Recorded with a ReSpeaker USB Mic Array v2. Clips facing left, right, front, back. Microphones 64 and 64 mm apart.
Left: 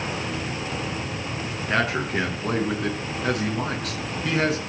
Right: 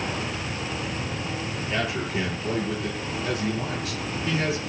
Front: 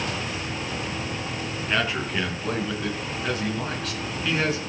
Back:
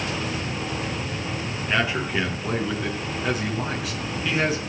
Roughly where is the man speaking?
Left.